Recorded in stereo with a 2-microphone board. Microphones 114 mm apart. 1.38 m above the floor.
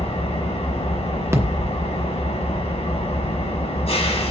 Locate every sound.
0.0 s an engine running: 70° left (ahead or behind), 2.5 m
1.3 s a thud: 25° right (ahead or behind), 0.9 m